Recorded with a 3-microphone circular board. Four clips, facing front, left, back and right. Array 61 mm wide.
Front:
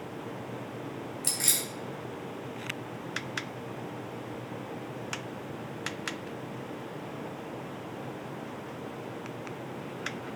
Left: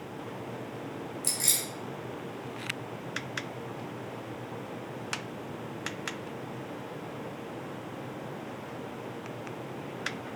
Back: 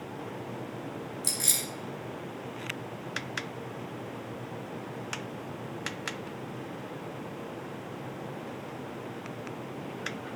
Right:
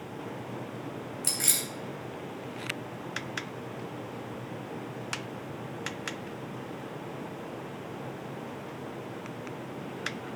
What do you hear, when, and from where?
1.2 s keys jangling: 55° right, 2.5 m